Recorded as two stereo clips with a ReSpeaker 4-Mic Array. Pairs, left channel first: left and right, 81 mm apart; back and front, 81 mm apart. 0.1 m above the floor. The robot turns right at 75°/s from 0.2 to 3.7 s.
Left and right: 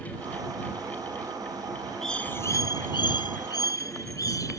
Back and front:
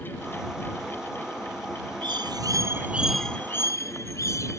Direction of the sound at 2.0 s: 5° left.